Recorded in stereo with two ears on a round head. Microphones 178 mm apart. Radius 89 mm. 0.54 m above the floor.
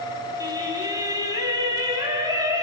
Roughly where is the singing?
Centre.